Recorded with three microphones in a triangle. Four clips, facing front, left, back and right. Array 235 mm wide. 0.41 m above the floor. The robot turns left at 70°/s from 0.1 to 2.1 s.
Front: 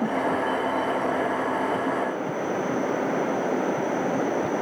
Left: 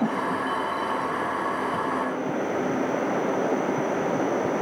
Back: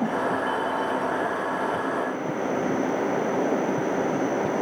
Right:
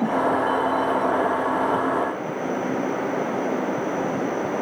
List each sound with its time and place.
Only background noise.